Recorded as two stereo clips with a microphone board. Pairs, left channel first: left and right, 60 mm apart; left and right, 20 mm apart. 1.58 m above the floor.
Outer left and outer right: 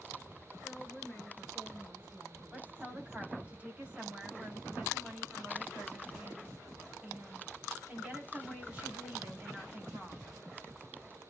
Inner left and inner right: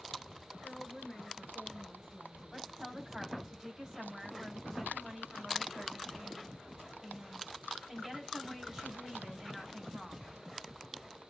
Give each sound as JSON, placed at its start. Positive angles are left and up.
{"t": 0.6, "sound": "a woman speaking", "side_deg": 0, "distance_m": 6.5}
{"t": 2.5, "sound": "a woman speaking", "side_deg": -20, "distance_m": 4.5}